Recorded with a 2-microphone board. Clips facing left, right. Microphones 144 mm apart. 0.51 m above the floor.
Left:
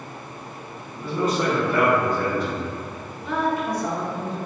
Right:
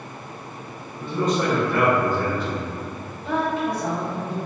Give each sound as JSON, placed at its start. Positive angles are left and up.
{"t": 0.9, "sound": "a man speaking", "side_deg": 10, "distance_m": 1.2}
{"t": 3.2, "sound": "a woman speaking", "side_deg": -20, "distance_m": 0.9}